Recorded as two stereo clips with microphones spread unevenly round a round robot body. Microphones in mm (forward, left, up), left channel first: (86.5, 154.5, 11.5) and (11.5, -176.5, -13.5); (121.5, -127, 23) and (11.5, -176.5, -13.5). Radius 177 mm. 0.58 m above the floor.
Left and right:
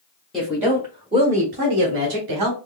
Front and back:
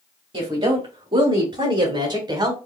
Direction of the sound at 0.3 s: 170° left.